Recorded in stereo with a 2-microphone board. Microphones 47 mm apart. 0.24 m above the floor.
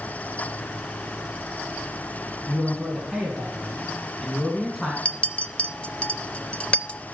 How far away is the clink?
About 0.5 m.